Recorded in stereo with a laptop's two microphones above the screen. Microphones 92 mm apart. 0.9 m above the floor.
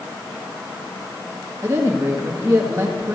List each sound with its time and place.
1.6 s a woman speaking: 35° right (ahead or behind), 1.2 m